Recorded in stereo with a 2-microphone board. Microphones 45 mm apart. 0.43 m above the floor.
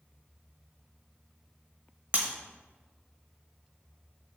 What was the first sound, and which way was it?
Breaking glass, 40° right (ahead or behind).